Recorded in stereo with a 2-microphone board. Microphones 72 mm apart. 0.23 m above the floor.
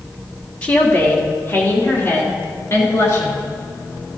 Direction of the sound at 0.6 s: 20° left (ahead or behind).